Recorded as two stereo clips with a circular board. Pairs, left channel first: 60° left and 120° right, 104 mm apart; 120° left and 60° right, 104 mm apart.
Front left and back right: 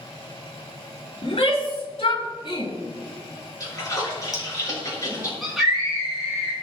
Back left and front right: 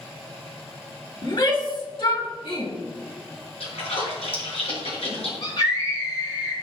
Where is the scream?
155° left, 4 m.